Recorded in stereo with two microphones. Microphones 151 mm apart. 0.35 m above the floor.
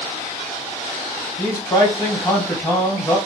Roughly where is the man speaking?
Centre.